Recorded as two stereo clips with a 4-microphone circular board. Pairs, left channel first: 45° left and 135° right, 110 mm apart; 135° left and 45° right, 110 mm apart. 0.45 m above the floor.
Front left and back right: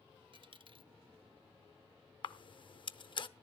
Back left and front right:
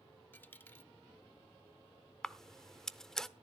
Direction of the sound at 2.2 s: 50° left.